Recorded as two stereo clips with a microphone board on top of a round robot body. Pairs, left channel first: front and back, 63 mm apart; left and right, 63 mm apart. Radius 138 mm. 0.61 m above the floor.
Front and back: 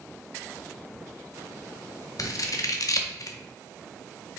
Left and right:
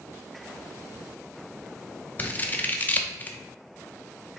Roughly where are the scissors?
Ahead left.